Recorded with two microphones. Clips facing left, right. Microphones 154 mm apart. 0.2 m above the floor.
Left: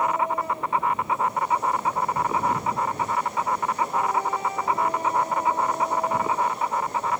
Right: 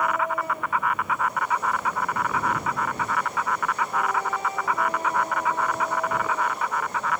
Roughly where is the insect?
Left.